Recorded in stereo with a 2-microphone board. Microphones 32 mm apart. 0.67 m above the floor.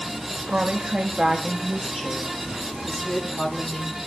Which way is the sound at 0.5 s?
45° right (ahead or behind).